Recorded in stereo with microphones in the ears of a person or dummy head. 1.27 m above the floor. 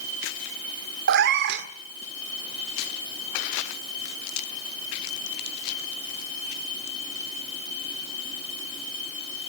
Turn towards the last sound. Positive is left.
turn(degrees=-55)  # may be behind; listen again after turning